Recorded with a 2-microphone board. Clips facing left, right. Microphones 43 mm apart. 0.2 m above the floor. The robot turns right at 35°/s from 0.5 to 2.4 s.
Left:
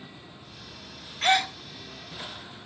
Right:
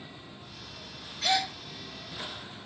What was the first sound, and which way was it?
A gasp, 45° left (ahead or behind).